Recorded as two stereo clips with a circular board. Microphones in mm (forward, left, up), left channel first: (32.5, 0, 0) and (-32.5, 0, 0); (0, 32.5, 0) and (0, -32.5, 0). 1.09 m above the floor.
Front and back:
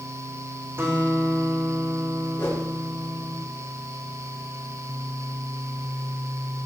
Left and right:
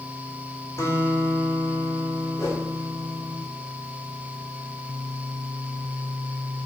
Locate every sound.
0.8 s a guitar: 130° left, 4.5 m
2.4 s a whoosh: 55° left, 3.5 m